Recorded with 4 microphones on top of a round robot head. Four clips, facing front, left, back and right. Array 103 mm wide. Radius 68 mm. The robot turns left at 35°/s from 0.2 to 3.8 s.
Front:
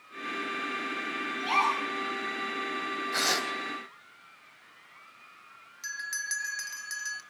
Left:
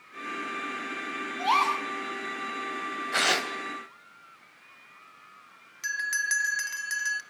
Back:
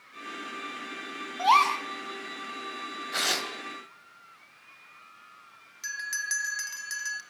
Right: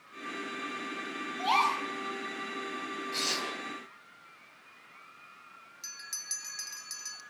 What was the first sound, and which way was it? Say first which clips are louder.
A gasp: left 3 dB, back 6 dB; 175° right.